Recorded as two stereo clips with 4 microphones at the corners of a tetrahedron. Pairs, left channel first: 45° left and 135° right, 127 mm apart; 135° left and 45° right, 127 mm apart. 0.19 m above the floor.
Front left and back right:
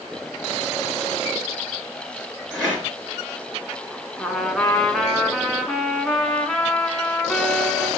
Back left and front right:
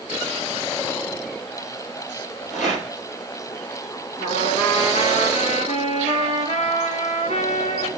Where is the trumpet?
130° left, 1.3 m.